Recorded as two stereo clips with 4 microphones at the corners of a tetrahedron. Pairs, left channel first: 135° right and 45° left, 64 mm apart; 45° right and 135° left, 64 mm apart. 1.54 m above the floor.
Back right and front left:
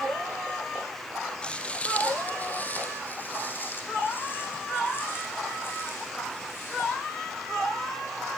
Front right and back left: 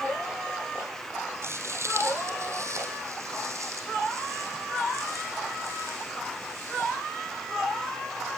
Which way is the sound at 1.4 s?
160° left.